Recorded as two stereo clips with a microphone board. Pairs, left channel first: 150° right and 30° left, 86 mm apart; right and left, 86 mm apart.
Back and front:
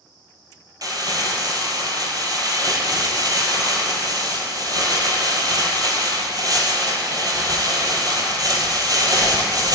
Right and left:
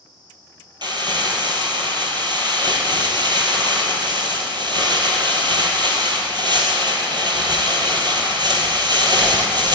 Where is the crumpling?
65° left, 1.9 m.